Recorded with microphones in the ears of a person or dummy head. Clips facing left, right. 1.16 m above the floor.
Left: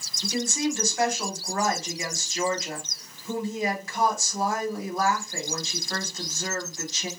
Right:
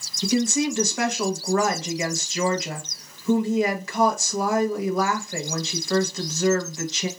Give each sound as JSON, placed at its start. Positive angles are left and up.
{"t": 0.2, "sound": "a woman speaking", "side_deg": -55, "distance_m": 0.8}